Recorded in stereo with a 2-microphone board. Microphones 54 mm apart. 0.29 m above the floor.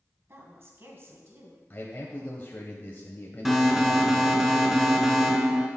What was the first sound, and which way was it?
A woman speaking, 50° right (ahead or behind).